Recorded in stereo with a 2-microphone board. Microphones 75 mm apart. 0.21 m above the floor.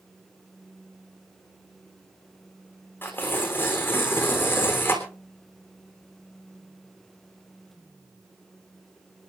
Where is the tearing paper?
25° left (ahead or behind), 3.5 m.